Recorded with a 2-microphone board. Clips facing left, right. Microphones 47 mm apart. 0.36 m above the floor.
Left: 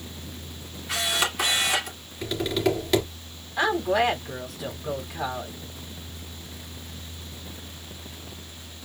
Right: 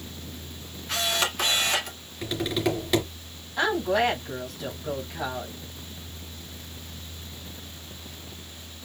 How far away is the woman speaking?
About 3 m.